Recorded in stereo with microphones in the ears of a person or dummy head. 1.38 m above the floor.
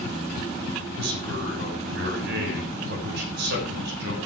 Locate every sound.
1.0 s a man speaking: 65° right (ahead or behind), 6.5 m